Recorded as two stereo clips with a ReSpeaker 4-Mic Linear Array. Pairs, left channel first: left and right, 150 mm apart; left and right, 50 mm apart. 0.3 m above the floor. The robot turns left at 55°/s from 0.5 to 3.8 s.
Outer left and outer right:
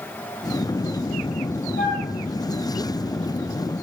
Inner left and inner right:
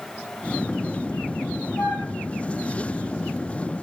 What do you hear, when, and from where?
1.8 s a flute: 80° left, 5.5 m; by 2.1 s 65° left (ahead or behind), 5.5 m